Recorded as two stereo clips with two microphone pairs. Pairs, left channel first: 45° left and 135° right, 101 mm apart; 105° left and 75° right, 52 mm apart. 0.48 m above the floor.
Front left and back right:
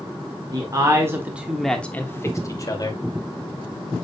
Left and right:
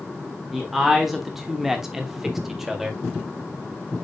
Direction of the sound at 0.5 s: 160° right.